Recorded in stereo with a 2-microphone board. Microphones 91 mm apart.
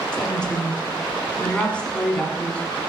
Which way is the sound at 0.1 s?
10° left (ahead or behind).